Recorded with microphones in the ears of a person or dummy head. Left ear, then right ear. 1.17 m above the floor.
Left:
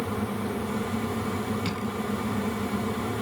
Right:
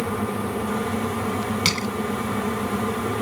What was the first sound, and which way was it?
Crushing, 65° right (ahead or behind).